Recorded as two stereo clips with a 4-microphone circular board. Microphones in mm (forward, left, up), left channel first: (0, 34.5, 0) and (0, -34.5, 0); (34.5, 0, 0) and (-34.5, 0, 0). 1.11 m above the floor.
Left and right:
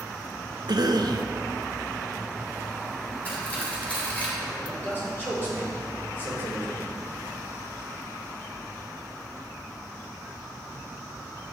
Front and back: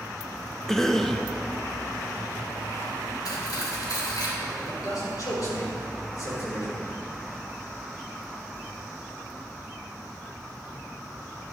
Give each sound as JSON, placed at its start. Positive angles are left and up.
{"t": 0.7, "sound": "a cough", "azimuth_deg": -85, "distance_m": 0.7}
{"t": 3.2, "sound": "cutlery clinking", "azimuth_deg": 20, "distance_m": 2.5}
{"t": 4.6, "sound": "a man speaking", "azimuth_deg": 30, "distance_m": 4.0}